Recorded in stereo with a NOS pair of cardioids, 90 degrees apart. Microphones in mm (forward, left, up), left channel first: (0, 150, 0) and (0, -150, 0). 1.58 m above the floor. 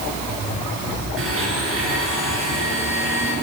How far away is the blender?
About 7.5 m.